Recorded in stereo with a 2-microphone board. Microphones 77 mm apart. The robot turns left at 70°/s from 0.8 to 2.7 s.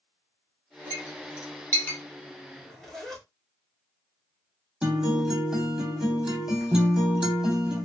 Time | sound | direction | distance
0.9 | a clink | 40° left (ahead or behind) | 1.3 m
2.5 | a zipper | 15° left (ahead or behind) | 1.3 m
4.8 | a guitar | 5° right (ahead or behind) | 1.0 m